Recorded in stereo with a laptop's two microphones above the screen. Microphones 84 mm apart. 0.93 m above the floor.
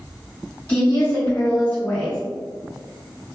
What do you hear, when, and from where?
0.7 s a woman speaking: 20° left (ahead or behind), 1.3 m